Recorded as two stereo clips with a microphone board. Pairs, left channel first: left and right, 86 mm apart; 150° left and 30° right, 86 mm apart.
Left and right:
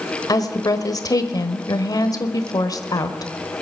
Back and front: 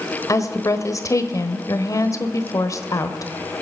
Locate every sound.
0.3 s a woman speaking: 115° left, 1.2 m